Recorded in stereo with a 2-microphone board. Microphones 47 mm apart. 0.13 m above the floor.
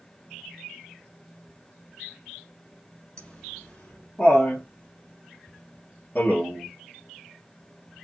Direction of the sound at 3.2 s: 15° left (ahead or behind).